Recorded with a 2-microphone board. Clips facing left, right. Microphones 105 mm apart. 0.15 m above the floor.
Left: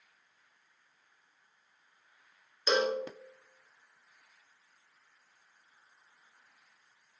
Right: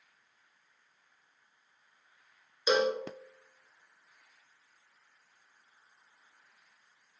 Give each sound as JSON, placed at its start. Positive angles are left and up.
{"t": 2.7, "sound": "a cowbell", "side_deg": -5, "distance_m": 0.5}